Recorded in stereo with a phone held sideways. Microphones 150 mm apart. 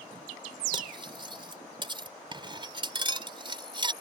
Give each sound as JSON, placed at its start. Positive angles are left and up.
{"t": 0.7, "sound": "cutlery clinking", "side_deg": -35}